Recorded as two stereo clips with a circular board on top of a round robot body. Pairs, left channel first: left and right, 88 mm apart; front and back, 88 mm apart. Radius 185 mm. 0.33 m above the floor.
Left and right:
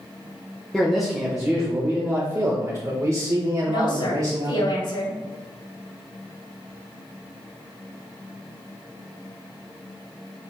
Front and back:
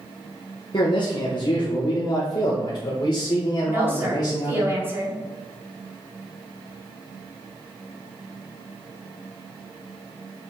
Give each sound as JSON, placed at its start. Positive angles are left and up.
{"t": 0.7, "sound": "a man speaking", "azimuth_deg": 5, "distance_m": 1.4}
{"t": 3.6, "sound": "a woman speaking", "azimuth_deg": 115, "distance_m": 3.0}